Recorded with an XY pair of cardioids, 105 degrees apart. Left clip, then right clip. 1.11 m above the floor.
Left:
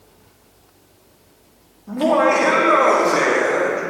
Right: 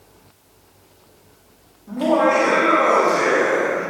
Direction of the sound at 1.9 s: 30° left.